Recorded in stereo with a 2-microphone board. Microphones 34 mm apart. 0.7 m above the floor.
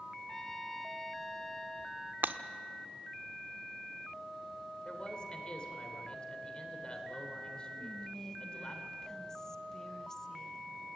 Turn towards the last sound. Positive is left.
turn(degrees=15)  # may be behind; listen again after turning